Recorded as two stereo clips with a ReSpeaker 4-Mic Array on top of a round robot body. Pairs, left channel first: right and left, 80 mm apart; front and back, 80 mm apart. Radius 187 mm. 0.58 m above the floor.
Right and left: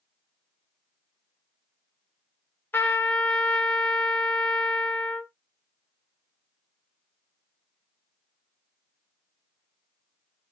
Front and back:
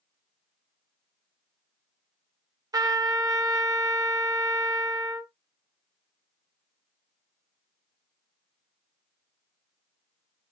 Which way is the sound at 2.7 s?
155° right.